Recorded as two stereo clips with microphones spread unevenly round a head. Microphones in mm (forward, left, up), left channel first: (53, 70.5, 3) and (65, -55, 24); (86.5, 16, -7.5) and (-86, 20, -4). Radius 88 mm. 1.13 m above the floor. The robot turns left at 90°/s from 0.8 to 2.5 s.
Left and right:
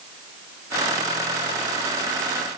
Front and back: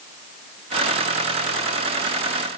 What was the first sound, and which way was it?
Only background noise.